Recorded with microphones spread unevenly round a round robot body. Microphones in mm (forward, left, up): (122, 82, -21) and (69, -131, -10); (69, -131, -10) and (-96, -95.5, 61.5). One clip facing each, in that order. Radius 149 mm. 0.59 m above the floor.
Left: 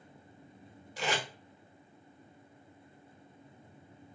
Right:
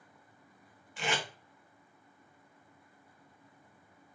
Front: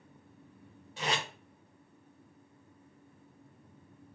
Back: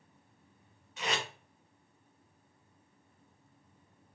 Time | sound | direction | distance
1.0 | tape being pulled | 30° left | 1.7 m